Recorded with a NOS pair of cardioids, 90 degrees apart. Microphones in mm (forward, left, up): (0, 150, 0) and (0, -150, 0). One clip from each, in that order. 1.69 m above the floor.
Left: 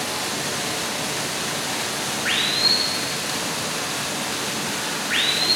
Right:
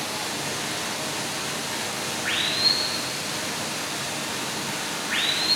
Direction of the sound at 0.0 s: 25° left.